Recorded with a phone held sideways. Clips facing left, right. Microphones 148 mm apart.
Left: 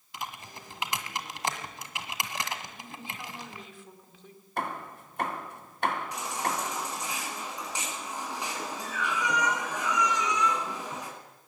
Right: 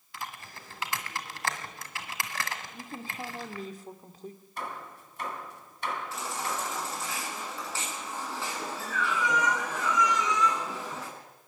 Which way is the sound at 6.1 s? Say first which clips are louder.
Left 2 dB; 15° left (ahead or behind).